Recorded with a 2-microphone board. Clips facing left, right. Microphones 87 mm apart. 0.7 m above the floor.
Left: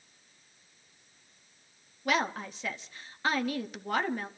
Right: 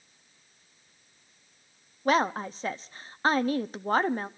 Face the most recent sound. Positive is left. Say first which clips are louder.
# right 5 dB
turn(degrees=-35)  # may be behind; listen again after turning